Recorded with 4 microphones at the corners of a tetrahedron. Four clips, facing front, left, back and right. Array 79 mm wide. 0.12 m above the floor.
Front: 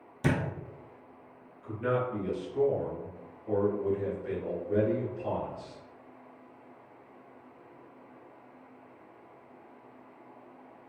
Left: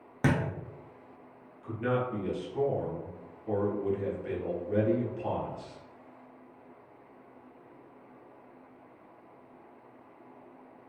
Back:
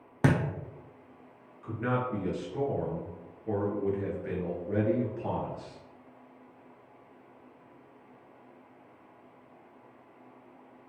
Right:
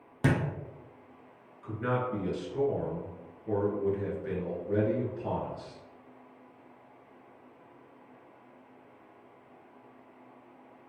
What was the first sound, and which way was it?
A thud, 170° left.